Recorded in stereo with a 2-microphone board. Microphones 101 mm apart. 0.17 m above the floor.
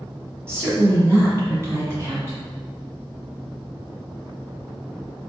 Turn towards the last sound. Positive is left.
turn(degrees=-25)  # may be behind; listen again after turning